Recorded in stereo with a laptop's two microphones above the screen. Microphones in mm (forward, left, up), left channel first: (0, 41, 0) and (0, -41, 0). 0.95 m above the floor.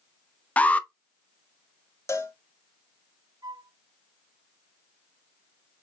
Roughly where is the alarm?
Centre.